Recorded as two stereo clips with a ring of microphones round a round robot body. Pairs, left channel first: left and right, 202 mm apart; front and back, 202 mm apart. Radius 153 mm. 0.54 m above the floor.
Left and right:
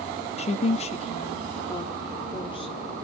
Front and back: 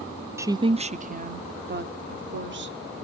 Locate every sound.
0.4 s a woman speaking: 110° left, 0.7 m; by 3.0 s 160° left, 1.8 m